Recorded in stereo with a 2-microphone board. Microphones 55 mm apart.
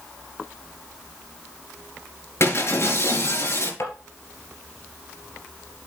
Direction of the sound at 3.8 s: 55° left (ahead or behind).